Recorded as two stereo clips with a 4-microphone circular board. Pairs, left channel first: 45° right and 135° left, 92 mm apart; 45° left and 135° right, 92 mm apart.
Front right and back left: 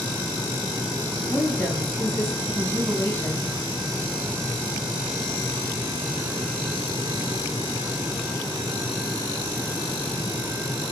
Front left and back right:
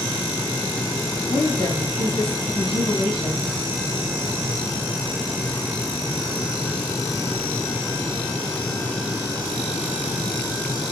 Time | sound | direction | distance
1.3 | a woman speaking | 25° left | 6 m